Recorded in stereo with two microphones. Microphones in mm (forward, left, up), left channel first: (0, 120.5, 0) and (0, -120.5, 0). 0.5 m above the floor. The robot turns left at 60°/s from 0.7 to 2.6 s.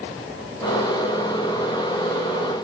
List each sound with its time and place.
Only background noise.